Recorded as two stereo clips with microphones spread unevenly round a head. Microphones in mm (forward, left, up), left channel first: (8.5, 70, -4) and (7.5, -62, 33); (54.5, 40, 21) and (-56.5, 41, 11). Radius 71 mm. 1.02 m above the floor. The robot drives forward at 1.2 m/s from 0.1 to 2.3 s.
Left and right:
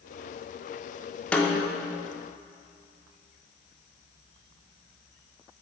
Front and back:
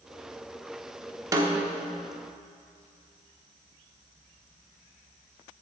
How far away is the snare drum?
About 0.6 m.